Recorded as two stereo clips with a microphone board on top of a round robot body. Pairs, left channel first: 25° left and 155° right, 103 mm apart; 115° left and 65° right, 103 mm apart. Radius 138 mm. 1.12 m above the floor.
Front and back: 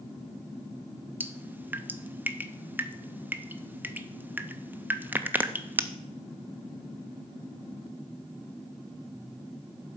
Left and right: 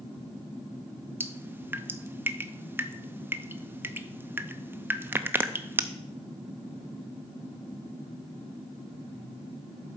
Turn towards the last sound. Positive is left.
turn(degrees=-110)